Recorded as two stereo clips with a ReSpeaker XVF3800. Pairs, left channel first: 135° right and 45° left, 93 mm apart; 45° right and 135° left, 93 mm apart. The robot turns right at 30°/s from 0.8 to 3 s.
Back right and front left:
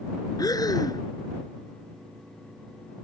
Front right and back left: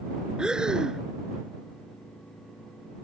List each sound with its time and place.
0.4 s breathing: 145° right; by 1.0 s 140° right